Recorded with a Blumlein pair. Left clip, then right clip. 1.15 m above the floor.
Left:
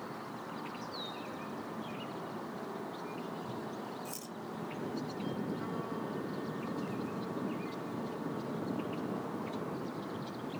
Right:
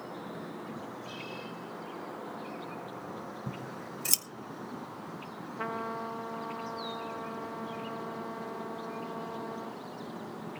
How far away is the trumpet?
About 1.1 m.